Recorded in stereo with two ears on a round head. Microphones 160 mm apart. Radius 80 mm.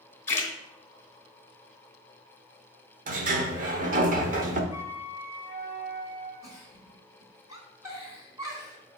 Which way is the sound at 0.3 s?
15° left (ahead or behind).